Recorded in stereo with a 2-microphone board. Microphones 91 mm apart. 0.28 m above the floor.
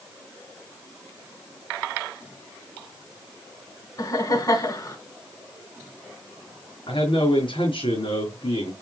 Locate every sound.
4.0 s laughter: 40° left (ahead or behind), 3 m
6.9 s a man speaking: 65° left (ahead or behind), 3.5 m